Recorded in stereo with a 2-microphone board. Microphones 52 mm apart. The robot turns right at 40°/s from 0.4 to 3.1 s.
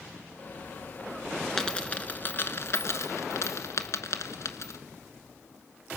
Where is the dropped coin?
10° left (ahead or behind), 1.1 m; by 4.8 s 70° left (ahead or behind), 1.1 m.